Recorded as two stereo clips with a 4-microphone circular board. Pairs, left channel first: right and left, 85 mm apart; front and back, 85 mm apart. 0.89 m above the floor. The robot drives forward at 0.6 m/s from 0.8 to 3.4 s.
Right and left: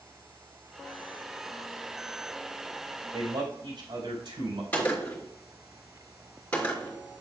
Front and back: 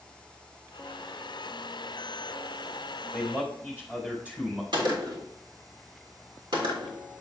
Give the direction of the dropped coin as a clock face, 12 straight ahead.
I don't hear a dropped coin.